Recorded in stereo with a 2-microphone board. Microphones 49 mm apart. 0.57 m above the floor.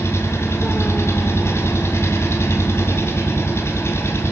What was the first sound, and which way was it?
An engine running, 60° left (ahead or behind).